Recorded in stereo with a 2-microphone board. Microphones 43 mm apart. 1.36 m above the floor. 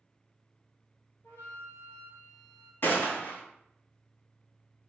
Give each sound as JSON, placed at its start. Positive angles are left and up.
{"t": 1.2, "sound": "a flute", "side_deg": 55, "distance_m": 1.3}
{"t": 2.8, "sound": "a gunshot", "side_deg": 45, "distance_m": 1.0}